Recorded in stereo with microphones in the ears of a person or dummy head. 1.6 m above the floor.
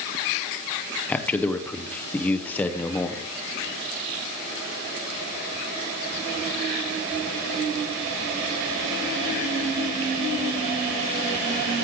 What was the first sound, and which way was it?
A man speaking, 5° left (ahead or behind).